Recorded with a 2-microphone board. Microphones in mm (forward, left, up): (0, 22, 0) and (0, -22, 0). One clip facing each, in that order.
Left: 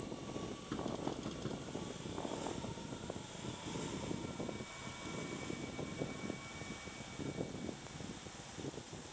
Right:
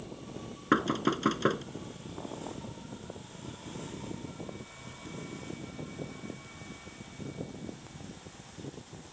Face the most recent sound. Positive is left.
turn(degrees=-70)  # may be behind; listen again after turning